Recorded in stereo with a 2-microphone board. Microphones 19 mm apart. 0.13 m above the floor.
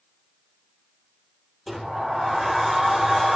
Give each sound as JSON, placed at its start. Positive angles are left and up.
{"t": 1.7, "sound": "a sliding door", "side_deg": 5, "distance_m": 5.0}